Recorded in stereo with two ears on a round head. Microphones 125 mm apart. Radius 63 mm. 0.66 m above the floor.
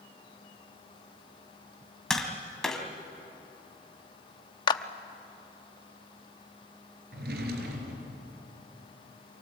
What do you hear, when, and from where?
2.1 s tapping: 5° left (ahead or behind), 2 m
4.7 s a clap: 35° left (ahead or behind), 0.8 m
7.1 s a drawer: 75° right (ahead or behind), 4 m